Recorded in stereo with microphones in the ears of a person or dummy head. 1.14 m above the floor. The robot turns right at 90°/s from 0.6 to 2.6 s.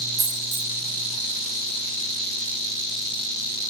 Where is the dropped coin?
10° right (ahead or behind), 2.5 m; by 0.7 s 5° right (ahead or behind), 2.5 m.